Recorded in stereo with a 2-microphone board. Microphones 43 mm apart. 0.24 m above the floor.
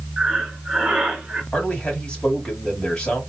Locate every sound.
0.2 s breathing: 20° right (ahead or behind), 1.5 m
1.5 s a man speaking: 20° left (ahead or behind), 1.6 m